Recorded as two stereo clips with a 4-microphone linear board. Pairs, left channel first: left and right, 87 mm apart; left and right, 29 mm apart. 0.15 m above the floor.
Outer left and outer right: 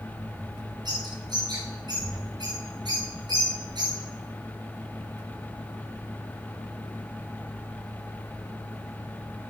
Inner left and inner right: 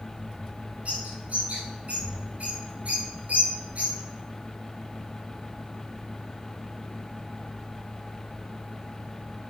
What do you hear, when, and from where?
0.8 s a bird: 55° right (ahead or behind), 6.5 m